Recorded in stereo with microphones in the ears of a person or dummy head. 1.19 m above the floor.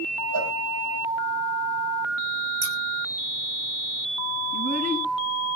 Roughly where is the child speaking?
Right.